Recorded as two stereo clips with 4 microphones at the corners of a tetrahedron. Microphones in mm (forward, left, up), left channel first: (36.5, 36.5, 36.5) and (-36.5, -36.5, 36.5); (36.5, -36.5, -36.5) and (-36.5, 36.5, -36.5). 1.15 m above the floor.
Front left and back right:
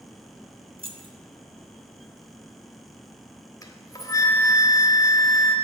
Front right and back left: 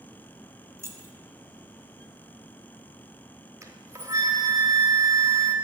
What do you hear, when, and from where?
0.8 s keys jangling: 165° right, 1.1 m
3.6 s a flute: 85° left, 1.2 m